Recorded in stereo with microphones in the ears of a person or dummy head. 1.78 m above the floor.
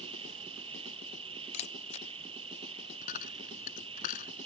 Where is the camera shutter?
35° left (ahead or behind).